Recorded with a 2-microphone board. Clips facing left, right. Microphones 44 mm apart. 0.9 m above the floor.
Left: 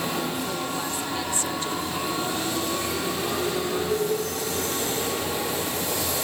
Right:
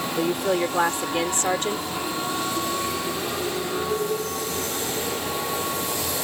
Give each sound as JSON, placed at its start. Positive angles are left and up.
{"t": 0.2, "sound": "a woman speaking", "side_deg": -65}